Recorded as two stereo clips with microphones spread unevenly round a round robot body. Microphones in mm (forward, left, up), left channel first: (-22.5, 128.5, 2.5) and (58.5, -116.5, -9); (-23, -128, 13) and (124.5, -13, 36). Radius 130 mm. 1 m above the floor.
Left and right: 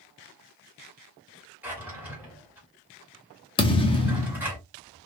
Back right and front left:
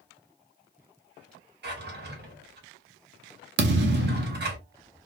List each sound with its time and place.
1.6 s a drawer: 10° left, 1.6 m
3.6 s a thud: 40° left, 0.7 m